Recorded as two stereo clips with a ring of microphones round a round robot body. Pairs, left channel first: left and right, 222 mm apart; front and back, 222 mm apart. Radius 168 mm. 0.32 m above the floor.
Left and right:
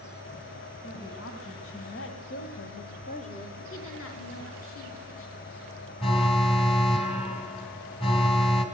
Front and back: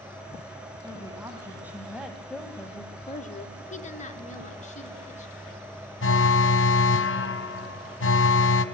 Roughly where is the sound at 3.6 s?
Ahead left.